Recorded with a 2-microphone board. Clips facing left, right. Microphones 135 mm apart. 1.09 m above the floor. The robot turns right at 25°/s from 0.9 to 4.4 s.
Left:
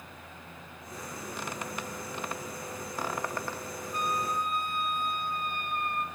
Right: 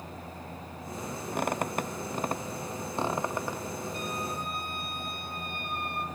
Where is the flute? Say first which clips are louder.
Left 3 dB; 50° left (ahead or behind), 0.9 m; by 6.0 s 40° left (ahead or behind), 0.9 m.